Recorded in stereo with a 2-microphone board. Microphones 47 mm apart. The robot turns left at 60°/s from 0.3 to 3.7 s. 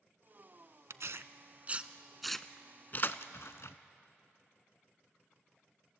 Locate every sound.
0.9 s tearing paper: 75° right (ahead or behind), 0.6 m; by 3.8 s 80° left, 0.6 m